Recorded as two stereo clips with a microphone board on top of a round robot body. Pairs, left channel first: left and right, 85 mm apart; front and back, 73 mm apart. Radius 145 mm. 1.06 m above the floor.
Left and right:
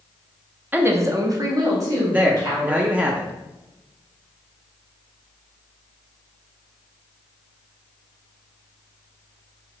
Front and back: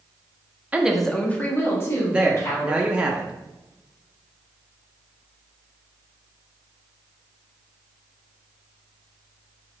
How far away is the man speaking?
About 0.6 m.